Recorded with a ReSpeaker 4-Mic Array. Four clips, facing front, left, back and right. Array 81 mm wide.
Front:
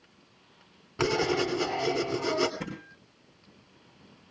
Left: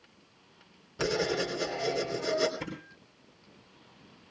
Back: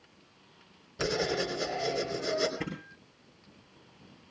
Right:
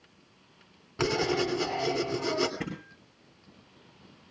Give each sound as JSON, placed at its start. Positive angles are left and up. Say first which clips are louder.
{"t": 1.0, "sound": "writing", "louder": "right 2 dB, front 4 dB", "azimuth_deg": -40, "distance_m": 3.0}
{"t": 2.6, "sound": "a thud", "louder": "right 3 dB, back 1 dB", "azimuth_deg": -105, "distance_m": 8.0}